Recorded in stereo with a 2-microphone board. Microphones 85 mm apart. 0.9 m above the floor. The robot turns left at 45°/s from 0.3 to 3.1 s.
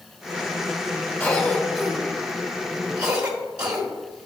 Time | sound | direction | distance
1.2 | a cough | 30° left (ahead or behind) | 1.0 m